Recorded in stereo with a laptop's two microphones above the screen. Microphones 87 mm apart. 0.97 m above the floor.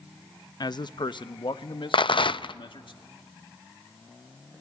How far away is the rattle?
About 0.5 m.